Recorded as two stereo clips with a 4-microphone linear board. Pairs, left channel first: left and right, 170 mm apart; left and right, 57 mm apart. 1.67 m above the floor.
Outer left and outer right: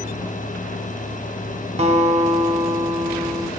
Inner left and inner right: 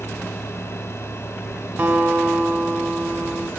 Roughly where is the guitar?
Right.